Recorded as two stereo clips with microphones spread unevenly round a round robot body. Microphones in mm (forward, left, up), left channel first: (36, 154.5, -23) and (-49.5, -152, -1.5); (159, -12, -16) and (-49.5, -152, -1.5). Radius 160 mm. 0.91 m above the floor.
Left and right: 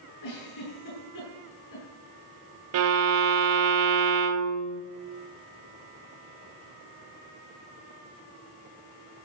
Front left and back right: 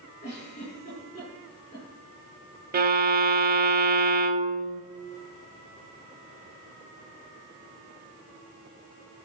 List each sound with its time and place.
0.2 s a giggle: 105° left, 8.5 m
2.7 s a violin: 110° right, 1.0 m